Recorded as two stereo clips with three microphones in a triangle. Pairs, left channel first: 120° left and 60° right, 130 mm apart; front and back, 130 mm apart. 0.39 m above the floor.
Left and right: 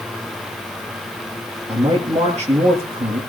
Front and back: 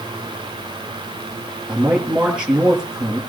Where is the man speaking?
95° right, 7 m.